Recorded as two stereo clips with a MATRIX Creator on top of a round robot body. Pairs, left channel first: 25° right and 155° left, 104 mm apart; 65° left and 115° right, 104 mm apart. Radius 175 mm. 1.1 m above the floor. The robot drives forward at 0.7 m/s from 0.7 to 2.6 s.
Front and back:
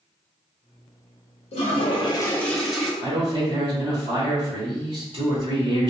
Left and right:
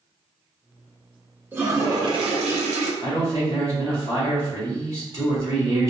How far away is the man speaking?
About 1.8 m.